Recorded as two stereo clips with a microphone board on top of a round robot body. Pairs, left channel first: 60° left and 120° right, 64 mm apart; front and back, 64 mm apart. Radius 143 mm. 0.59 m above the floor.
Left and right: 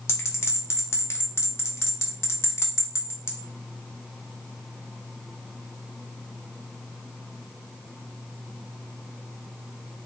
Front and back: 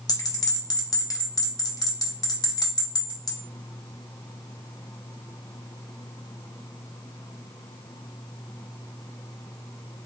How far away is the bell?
About 0.8 m.